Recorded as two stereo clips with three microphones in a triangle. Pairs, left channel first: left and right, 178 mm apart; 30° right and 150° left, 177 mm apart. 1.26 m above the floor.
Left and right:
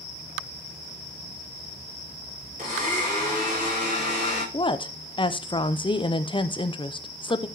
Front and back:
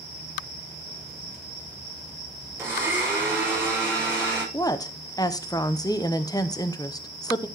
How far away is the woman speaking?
About 0.6 m.